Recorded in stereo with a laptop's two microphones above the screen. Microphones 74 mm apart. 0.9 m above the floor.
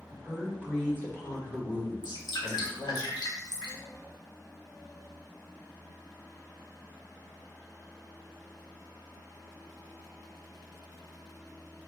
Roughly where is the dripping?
Left.